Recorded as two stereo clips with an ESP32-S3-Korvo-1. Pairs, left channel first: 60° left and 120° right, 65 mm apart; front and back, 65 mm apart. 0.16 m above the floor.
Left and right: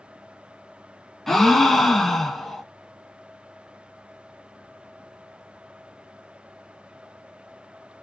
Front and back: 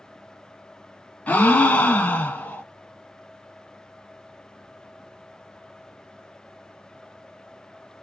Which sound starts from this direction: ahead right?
A gasp, at 1.3 s.